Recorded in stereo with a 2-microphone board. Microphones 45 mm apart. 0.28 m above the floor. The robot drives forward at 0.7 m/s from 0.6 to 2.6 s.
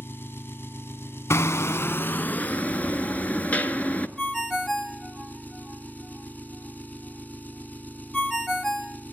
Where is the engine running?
60° left (ahead or behind), 1.1 m; by 9.1 s 40° left (ahead or behind), 1.5 m.